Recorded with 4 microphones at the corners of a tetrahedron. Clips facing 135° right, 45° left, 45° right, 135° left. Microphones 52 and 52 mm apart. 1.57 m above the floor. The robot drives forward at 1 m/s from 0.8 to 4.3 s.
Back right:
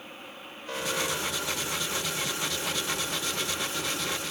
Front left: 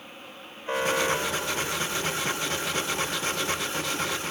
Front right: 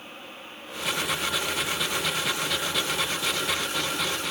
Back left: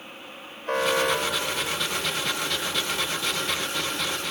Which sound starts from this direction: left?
An alarm, at 0.7 s.